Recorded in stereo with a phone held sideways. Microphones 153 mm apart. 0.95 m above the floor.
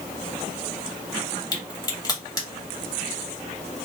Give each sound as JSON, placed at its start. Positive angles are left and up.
{"t": 1.5, "sound": "a crack", "side_deg": 25, "distance_m": 1.9}